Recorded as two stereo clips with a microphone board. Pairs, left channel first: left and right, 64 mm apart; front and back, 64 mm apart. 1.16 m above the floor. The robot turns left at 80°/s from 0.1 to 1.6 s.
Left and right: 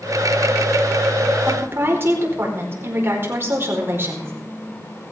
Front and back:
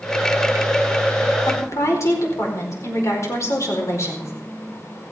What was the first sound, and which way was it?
A woman speaking, 25° right.